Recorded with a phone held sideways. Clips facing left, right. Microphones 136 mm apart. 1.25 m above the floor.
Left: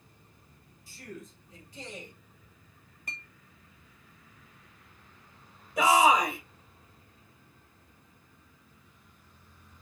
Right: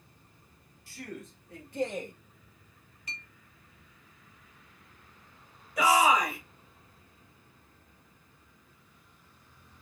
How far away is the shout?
About 2 m.